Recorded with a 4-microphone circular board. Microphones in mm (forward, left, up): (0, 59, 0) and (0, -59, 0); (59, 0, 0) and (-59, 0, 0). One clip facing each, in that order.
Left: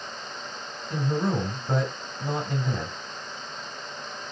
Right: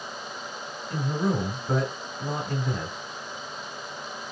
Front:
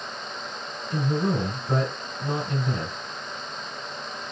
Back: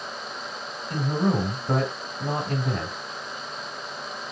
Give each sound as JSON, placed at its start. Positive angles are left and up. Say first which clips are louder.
{"t": 0.9, "sound": "a man speaking", "louder": "left 1 dB, back 1 dB", "azimuth_deg": 170, "distance_m": 1.8}